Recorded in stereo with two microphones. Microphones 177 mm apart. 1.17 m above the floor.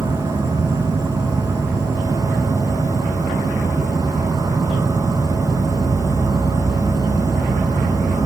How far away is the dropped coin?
No dropped coin in this recording.